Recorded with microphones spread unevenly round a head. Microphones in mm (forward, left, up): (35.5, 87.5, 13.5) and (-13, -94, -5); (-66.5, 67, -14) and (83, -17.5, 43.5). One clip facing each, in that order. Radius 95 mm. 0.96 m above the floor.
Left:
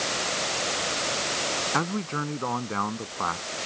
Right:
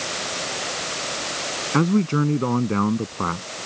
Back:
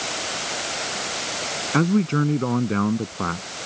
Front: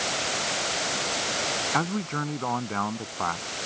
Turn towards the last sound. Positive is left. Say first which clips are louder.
# right 14 dB, back 12 dB
turn(degrees=-155)